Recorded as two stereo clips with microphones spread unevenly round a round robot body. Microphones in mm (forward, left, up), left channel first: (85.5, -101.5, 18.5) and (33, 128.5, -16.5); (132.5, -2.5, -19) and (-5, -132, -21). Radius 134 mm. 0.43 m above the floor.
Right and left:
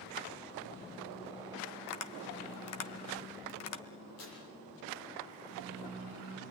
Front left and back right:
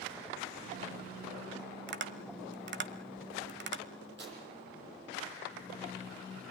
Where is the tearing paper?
115° right, 9 m.